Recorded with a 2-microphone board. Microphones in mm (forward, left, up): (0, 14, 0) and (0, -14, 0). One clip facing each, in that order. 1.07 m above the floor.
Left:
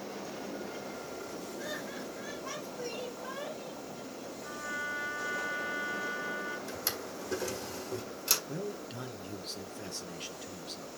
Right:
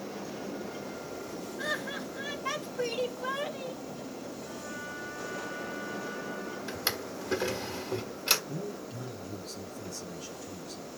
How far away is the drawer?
About 1.5 m.